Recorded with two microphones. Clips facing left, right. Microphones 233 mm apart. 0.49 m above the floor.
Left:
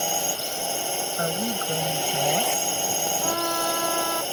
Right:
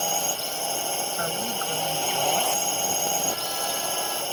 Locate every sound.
0.0 s a drone: 15° left (ahead or behind)
1.2 s a woman speaking: 35° left (ahead or behind)
3.2 s a trumpet: 70° left (ahead or behind)